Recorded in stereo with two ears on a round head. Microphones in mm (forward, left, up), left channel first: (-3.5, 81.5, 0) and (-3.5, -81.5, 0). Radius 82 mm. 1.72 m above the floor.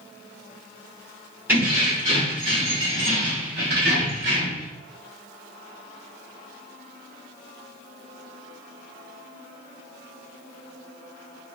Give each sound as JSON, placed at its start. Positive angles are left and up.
{"t": 1.5, "sound": "keys jangling", "side_deg": -10, "distance_m": 1.9}